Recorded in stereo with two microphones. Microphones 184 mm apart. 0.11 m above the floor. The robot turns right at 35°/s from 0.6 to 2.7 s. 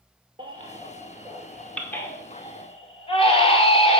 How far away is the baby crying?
About 0.9 m.